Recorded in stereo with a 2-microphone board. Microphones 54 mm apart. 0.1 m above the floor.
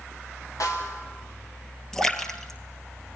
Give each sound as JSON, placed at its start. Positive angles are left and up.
{"t": 0.6, "sound": "a snare drum", "side_deg": 90, "distance_m": 6.5}
{"t": 1.9, "sound": "a splash", "side_deg": 10, "distance_m": 1.8}